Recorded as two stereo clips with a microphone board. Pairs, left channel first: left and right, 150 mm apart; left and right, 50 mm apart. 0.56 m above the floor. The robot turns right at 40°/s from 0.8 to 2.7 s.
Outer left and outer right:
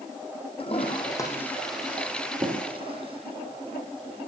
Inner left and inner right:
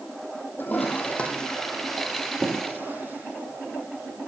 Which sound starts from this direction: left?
A toilet flushing, at 0.6 s.